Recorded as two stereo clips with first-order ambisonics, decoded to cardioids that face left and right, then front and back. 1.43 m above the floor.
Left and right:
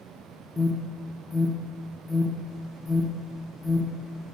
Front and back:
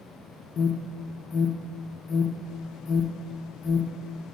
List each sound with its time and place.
0.6 s an alarm: 5° left, 0.6 m